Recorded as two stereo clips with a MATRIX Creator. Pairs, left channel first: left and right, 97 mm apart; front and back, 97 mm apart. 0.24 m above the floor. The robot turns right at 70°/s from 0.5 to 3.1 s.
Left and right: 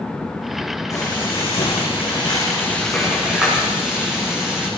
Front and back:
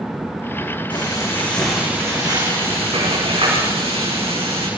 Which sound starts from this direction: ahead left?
Frying, at 0.9 s.